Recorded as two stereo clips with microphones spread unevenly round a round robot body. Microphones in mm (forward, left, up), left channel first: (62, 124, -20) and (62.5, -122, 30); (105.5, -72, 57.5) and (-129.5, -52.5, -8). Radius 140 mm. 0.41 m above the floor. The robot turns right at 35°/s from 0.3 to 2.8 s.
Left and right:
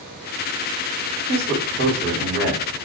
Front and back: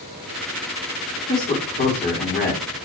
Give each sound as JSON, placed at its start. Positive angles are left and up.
{"t": 1.3, "sound": "a man speaking", "azimuth_deg": -90, "distance_m": 1.3}